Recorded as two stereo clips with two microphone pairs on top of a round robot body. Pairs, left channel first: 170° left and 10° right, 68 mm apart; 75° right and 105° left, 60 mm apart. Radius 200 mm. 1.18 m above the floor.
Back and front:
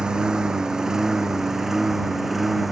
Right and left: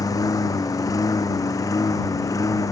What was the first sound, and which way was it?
A lawn mower, 90° right.